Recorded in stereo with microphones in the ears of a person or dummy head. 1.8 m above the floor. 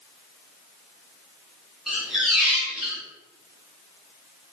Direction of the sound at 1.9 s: Centre (ahead or behind).